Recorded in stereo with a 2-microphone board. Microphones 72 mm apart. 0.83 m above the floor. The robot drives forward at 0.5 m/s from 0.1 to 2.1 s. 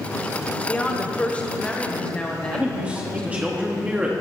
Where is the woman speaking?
20° left (ahead or behind), 0.9 m; by 3.4 s 15° left (ahead or behind), 1.1 m.